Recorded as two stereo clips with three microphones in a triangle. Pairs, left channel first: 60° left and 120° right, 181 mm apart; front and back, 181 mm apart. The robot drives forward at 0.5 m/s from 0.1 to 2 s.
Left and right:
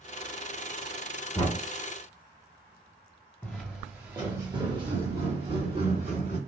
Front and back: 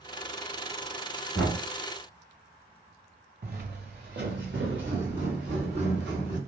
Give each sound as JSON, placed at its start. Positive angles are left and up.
{"t": 1.4, "sound": "knocking", "azimuth_deg": 85, "distance_m": 1.1}
{"t": 3.4, "sound": "footsteps", "azimuth_deg": 140, "distance_m": 0.7}